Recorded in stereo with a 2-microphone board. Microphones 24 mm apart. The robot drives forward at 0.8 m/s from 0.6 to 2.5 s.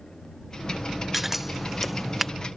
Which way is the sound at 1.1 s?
10° right (ahead or behind).